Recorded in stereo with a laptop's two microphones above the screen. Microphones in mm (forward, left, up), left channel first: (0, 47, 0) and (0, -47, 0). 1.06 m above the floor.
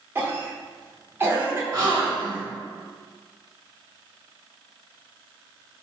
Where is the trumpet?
No trumpet in this recording.